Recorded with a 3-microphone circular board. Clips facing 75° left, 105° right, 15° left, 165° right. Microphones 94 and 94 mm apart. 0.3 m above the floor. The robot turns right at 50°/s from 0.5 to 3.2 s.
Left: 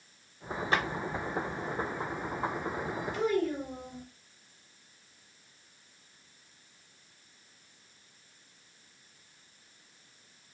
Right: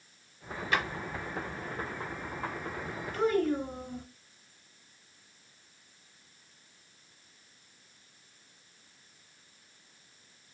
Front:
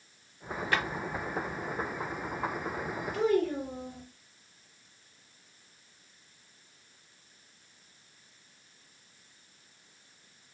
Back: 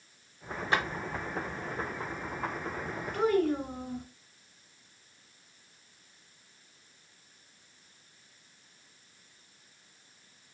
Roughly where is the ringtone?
No ringtone in this recording.